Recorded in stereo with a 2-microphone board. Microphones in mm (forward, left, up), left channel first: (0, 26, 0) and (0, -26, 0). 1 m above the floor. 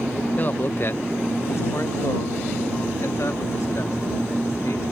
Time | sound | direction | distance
0.4 | a man speaking | 35° left (ahead or behind) | ?